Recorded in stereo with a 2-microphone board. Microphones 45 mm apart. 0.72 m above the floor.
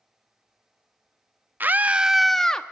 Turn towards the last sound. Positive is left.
turn(degrees=15)  # may be behind; listen again after turning